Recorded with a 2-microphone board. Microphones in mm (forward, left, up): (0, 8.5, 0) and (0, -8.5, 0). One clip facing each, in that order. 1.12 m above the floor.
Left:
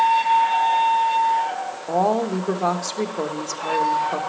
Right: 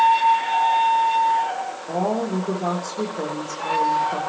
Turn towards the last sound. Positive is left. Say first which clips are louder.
# left 4 dB
turn(degrees=45)  # may be behind; listen again after turning